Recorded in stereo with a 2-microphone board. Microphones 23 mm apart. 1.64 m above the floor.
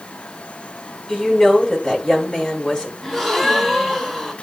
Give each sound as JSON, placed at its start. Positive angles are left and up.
{"t": 1.1, "sound": "a woman speaking", "side_deg": 30, "distance_m": 4.0}
{"t": 3.0, "sound": "a gasp", "side_deg": 15, "distance_m": 1.4}